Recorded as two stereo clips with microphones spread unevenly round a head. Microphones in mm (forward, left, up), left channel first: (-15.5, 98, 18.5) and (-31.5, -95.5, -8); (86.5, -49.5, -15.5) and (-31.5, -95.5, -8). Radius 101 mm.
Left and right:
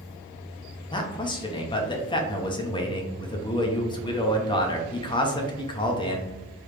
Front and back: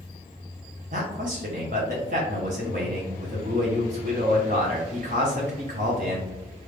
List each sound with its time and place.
0.9 s a man speaking: 150° left, 0.7 m